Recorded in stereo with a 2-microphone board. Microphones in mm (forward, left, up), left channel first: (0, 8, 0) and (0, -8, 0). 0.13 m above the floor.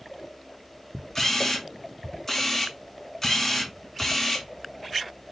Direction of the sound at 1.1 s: 25° left (ahead or behind).